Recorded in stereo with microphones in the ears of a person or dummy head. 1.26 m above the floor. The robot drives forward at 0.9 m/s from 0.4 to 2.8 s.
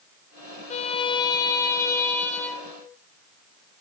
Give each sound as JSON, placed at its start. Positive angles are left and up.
{"t": 0.7, "sound": "a violin", "side_deg": 35, "distance_m": 0.6}